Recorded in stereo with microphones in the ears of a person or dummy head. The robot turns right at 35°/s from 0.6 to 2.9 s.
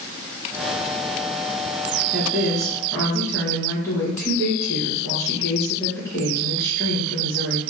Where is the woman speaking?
15° right (ahead or behind), 1.6 m; by 7.6 s 10° left (ahead or behind), 1.6 m.